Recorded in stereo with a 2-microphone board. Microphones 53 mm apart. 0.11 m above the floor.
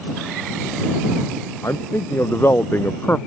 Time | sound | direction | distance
1.6 | a man speaking | 55° left (ahead or behind) | ?